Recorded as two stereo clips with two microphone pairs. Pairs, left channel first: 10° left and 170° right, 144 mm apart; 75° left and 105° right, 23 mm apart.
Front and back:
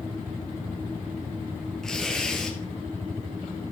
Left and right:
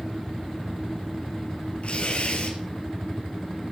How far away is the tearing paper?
About 3 m.